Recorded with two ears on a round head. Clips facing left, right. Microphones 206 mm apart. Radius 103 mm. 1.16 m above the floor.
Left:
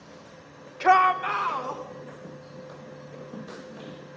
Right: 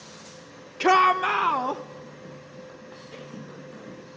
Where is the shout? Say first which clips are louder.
Right 1 dB; 45° right (ahead or behind), 1.0 m; by 1.8 s 75° right (ahead or behind), 1.6 m.